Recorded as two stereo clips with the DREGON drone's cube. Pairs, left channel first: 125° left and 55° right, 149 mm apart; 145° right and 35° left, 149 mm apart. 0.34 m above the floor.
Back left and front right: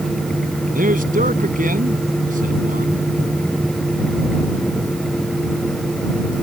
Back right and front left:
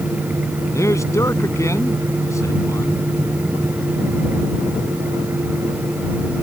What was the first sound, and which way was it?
A man speaking, 75° right.